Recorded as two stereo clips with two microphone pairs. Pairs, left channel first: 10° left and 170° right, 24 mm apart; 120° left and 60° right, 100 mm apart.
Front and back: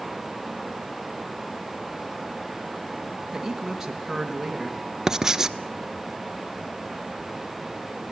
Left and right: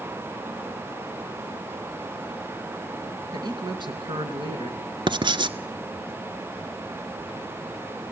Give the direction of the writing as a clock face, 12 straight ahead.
3 o'clock.